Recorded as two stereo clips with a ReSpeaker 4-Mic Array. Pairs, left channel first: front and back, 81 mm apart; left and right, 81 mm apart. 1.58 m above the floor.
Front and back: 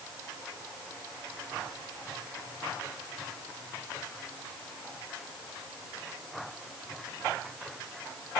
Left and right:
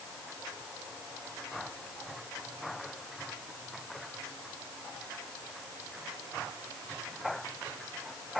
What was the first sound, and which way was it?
Only background noise.